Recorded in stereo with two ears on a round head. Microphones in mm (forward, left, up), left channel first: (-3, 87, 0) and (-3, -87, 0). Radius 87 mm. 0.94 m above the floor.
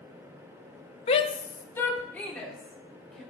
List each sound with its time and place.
1.1 s a shout: 30° left (ahead or behind), 0.9 m; by 3.2 s centre (ahead or behind), 4 m